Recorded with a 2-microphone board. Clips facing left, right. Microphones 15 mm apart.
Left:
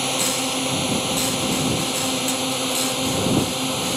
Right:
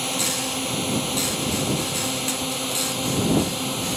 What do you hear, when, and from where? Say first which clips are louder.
0.0 s a drone: left 3 dB; 10° left (ahead or behind)